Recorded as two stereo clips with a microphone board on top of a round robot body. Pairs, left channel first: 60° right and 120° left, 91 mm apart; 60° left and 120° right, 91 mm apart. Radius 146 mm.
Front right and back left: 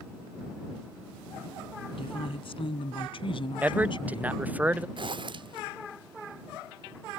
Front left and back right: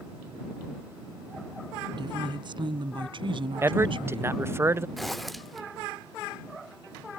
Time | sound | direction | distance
1.9 | a woman speaking | 80° right | ?
3.6 | a man speaking | 170° right | ?
5.0 | a zipper | 150° left | ?